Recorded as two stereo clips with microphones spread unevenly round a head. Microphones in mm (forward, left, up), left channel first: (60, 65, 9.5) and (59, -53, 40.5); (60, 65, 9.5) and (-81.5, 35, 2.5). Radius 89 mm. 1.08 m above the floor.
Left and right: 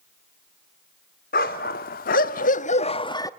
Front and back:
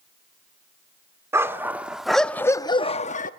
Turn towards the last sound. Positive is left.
turn(degrees=20)